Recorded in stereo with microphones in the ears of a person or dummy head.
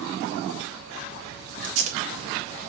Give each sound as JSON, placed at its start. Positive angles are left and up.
{"t": 1.6, "sound": "tape being pulled", "side_deg": -40, "distance_m": 4.0}